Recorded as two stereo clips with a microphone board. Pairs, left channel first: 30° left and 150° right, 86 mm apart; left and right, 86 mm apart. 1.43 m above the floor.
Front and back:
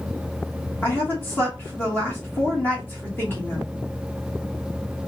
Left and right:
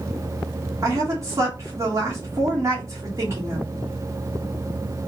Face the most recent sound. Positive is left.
turn(degrees=-35)